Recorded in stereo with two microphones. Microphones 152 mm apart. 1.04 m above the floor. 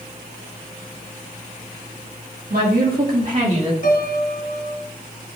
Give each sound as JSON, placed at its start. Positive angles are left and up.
{"t": 2.5, "sound": "a woman speaking", "side_deg": -80, "distance_m": 2.5}
{"t": 3.8, "sound": "a piano", "side_deg": 65, "distance_m": 1.9}